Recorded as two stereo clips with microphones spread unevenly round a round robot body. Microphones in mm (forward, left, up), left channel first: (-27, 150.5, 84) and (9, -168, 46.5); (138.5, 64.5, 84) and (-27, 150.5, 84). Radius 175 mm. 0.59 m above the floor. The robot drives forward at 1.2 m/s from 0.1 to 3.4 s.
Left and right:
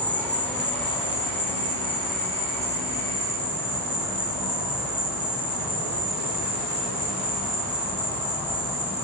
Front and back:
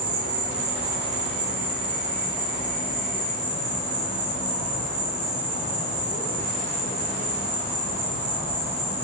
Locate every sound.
0.0 s an insect: 175° right, 1.3 m; by 9.0 s straight behind, 5 m